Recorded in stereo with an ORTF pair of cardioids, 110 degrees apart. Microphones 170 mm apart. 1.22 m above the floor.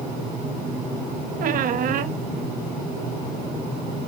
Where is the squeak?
55° right, 1.2 m.